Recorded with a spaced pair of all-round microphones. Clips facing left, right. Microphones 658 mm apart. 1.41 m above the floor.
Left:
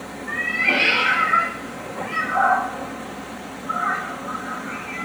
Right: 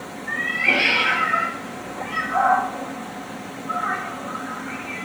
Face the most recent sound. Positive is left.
turn(degrees=0)  # may be behind; listen again after turning